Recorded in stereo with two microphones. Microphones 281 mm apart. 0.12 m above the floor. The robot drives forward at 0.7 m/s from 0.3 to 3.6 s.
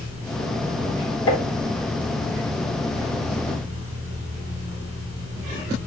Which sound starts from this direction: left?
Tapping, at 1.3 s.